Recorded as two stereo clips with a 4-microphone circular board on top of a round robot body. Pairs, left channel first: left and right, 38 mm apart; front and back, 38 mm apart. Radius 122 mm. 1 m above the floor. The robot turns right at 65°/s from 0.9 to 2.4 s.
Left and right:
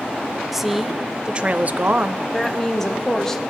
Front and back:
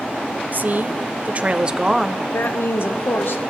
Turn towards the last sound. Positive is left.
turn(degrees=15)